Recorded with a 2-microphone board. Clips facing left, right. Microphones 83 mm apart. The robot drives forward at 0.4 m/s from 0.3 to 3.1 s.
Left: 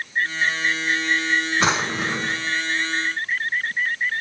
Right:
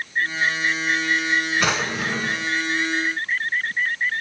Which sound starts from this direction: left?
A drawer, at 1.6 s.